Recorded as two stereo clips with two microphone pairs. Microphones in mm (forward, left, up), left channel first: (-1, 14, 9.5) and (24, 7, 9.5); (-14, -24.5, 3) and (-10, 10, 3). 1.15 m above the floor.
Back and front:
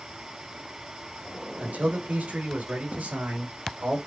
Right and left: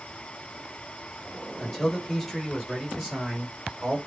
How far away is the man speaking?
About 4 m.